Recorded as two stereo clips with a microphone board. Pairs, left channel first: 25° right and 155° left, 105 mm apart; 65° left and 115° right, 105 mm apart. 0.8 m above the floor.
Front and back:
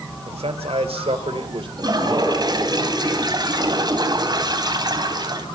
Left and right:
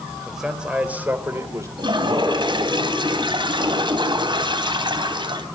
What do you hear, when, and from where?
0.2 s a man speaking: 160° left, 3.5 m; by 1.7 s 170° right, 3 m
1.8 s a toilet flushing: 155° right, 3 m